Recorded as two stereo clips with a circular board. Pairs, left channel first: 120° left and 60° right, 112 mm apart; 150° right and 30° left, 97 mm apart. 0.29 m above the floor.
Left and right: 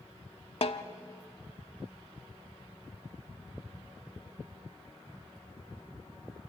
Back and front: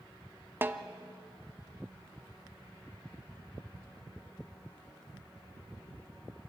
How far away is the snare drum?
About 0.7 m.